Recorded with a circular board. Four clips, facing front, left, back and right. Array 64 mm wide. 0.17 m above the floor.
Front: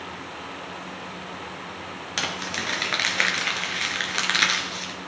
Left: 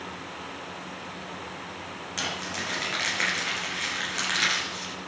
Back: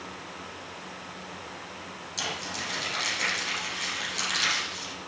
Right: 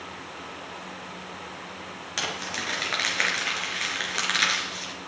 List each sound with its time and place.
2.2 s crumpling: 20° right, 2.5 m